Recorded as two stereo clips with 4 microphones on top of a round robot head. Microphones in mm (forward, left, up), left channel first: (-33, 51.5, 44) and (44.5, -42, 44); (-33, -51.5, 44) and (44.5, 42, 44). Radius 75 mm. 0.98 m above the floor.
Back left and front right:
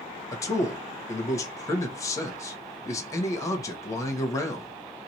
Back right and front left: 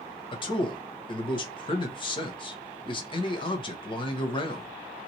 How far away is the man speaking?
About 1.2 m.